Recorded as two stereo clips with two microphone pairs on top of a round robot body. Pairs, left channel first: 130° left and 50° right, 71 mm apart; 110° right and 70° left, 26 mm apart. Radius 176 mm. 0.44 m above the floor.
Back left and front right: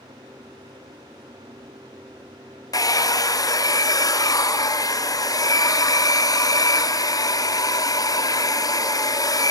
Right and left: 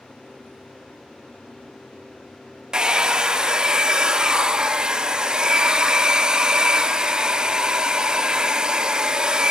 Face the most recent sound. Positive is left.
turn(degrees=115)